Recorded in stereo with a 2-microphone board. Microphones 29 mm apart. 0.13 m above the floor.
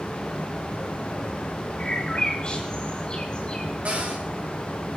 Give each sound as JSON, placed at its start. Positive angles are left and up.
{"t": 1.8, "sound": "a bird", "side_deg": 40, "distance_m": 9.5}
{"t": 3.9, "sound": "a cupboard door", "side_deg": -55, "distance_m": 5.5}